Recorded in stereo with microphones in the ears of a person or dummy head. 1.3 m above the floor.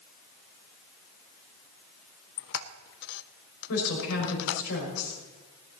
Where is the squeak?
70° left (ahead or behind), 0.6 m.